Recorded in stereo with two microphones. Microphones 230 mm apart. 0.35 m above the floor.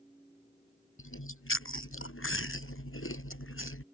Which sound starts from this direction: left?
Chewing, at 1.0 s.